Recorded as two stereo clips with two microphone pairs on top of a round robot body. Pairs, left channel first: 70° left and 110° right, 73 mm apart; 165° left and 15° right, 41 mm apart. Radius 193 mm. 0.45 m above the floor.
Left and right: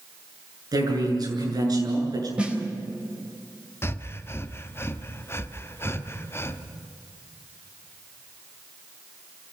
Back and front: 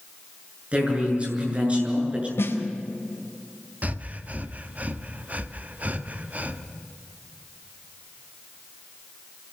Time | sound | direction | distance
0.7 | a man speaking | 75° right | 7.5 m
2.4 | a snare drum | 175° left | 4 m
3.8 | breathing | 20° left | 1.4 m